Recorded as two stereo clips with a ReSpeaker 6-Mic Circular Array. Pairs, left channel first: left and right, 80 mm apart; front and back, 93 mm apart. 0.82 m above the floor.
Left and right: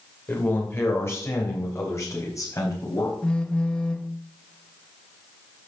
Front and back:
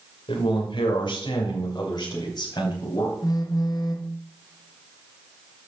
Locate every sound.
0.3 s a man speaking: 25° left, 2.5 m; by 3.1 s 45° left, 5 m
3.2 s a phone buzzing: 15° left, 1.0 m